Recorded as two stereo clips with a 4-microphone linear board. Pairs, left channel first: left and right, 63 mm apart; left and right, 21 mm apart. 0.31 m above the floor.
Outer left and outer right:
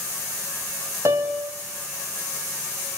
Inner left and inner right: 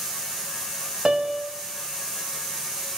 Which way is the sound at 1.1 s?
50° right (ahead or behind).